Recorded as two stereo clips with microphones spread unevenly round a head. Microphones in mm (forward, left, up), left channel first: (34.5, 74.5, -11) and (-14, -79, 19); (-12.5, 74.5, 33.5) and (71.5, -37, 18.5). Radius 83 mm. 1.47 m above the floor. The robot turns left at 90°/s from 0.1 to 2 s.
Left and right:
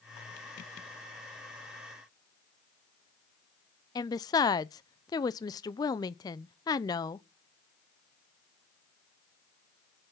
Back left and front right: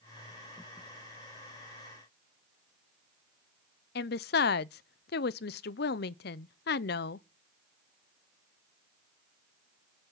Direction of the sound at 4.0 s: 140° left.